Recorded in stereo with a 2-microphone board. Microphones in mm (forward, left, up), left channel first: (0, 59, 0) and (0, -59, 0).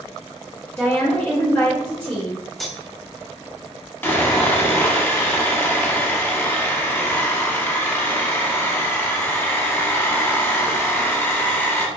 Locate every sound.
0.8 s a woman speaking: 20° left (ahead or behind), 1.1 m
2.6 s cutlery clinking: centre (ahead or behind), 0.5 m
4.0 s sawing: 20° left (ahead or behind), 0.6 m